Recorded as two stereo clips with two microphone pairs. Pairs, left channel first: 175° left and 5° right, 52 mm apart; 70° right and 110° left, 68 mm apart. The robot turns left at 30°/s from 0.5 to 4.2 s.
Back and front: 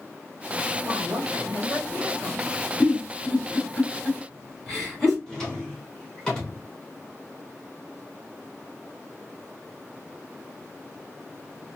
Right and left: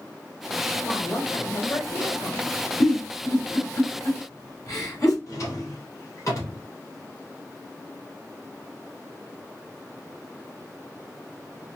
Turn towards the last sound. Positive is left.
turn(degrees=-105)